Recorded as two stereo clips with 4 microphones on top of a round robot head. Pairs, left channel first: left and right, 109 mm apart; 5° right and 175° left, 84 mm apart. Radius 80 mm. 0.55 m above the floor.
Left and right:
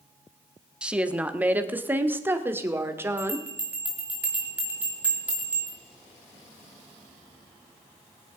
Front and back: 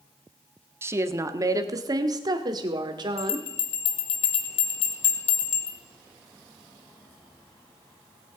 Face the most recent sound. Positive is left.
turn(degrees=-10)